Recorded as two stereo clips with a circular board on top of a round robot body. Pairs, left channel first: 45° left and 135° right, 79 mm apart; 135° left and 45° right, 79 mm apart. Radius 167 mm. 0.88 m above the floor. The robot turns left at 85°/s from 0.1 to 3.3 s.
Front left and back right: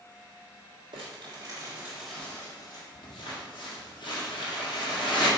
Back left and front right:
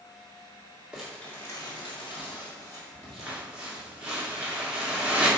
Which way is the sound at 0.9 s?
125° right.